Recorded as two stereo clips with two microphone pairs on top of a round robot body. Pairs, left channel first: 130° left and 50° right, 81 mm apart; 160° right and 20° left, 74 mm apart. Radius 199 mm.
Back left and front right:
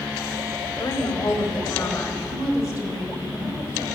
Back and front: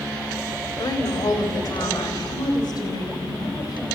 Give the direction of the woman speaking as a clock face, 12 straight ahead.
6 o'clock.